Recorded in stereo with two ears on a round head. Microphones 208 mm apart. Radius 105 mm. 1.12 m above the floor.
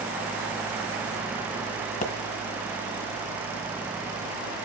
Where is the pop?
35° left (ahead or behind), 1.7 m.